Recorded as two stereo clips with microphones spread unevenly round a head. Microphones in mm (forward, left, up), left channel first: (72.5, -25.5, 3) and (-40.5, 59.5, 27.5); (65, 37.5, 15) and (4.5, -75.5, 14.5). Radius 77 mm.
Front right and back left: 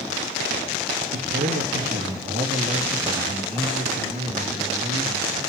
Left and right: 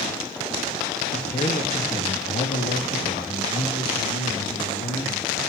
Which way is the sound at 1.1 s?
115° left.